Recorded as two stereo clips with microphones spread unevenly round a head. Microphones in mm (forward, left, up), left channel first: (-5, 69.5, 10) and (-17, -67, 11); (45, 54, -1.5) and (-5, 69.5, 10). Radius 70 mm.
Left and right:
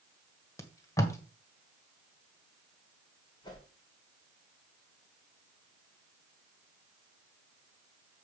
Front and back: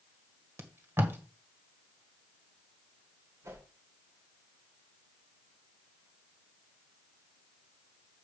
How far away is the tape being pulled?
About 1.6 m.